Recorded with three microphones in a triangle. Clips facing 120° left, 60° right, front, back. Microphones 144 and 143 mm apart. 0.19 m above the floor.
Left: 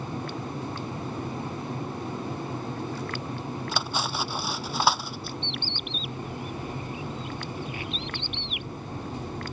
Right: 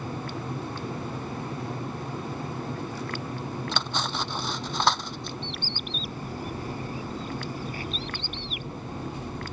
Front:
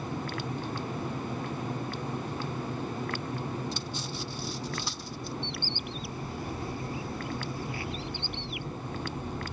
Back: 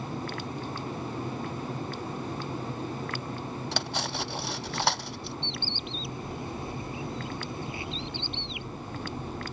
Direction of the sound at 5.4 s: 110° right.